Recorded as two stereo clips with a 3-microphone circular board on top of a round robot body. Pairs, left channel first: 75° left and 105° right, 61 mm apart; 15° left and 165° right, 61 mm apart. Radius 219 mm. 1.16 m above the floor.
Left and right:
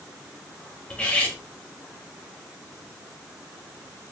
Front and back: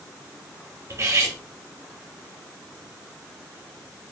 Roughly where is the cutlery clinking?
Behind left.